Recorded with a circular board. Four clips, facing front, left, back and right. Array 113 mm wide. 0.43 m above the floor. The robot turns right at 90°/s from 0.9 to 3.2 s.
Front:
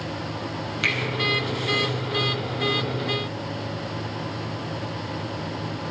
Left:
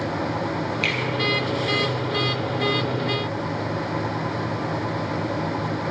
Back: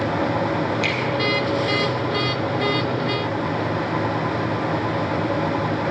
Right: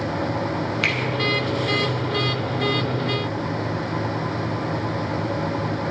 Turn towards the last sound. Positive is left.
turn(degrees=135)